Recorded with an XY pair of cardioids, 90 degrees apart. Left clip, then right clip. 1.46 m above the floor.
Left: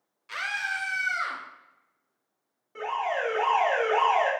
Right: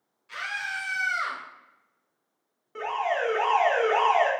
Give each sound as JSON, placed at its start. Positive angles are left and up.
{"t": 0.3, "sound": "a scream", "azimuth_deg": 65, "distance_m": 0.7}
{"t": 2.8, "sound": "an alarm", "azimuth_deg": -35, "distance_m": 1.0}